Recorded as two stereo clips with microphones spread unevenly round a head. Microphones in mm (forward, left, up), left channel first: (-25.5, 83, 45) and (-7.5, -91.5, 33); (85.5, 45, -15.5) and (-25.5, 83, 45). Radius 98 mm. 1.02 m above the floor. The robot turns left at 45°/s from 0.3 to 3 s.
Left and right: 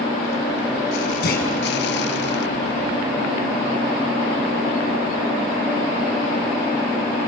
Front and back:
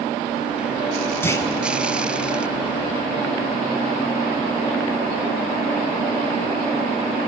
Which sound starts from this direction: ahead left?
A clunk, at 1.2 s.